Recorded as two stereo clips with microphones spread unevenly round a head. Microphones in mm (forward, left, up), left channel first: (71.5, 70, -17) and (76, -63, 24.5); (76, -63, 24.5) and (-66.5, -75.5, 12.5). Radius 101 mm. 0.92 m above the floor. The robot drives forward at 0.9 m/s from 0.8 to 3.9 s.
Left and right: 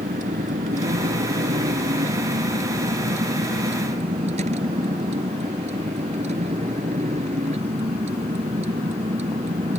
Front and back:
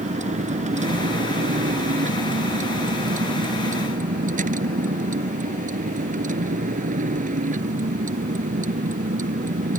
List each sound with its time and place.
0.0 s a vehicle: 140° right; by 9.8 s 145° right